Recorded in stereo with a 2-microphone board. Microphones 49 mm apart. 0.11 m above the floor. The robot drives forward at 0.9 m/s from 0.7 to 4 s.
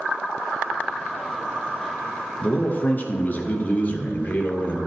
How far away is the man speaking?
About 1.4 m.